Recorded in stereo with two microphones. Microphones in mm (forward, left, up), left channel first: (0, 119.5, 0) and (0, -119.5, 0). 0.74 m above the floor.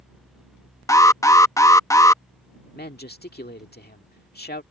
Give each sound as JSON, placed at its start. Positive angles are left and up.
{"t": 0.9, "sound": "an alarm", "side_deg": 15}
{"t": 2.8, "sound": "a man speaking", "side_deg": 40}